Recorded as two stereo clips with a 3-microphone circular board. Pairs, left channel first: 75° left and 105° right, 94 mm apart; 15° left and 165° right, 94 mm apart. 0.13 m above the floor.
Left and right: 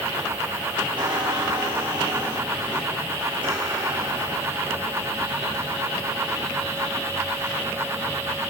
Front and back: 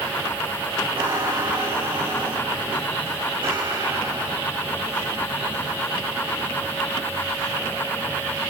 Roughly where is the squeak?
Behind right.